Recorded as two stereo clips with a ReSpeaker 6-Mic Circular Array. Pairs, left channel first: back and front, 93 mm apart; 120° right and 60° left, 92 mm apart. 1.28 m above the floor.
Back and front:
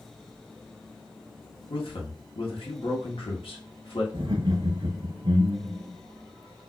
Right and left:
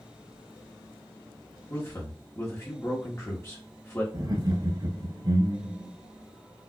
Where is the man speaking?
Straight behind, 1.3 m.